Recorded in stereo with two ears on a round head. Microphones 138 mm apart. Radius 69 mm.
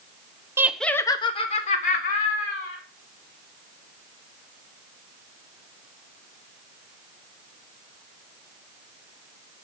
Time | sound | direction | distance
0.6 | laughter | 15° right (ahead or behind) | 0.9 m